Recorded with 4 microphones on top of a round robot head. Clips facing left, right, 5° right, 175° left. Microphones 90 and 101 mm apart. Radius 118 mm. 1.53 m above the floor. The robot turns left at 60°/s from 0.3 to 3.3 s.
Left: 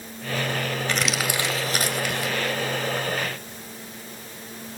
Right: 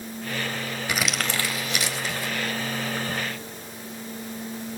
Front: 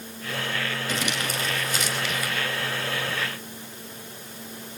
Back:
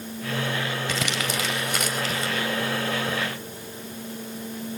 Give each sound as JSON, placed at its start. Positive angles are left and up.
{"t": 0.9, "sound": "crumpling", "azimuth_deg": -170, "distance_m": 4.0}